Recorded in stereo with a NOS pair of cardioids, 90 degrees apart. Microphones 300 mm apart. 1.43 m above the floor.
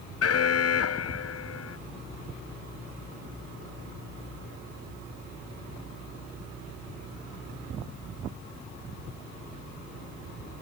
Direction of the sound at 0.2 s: 55° left.